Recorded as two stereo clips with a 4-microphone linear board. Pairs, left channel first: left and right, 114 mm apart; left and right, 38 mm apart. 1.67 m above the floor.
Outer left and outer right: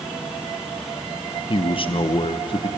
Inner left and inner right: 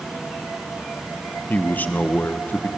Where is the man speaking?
50° left (ahead or behind), 0.9 m.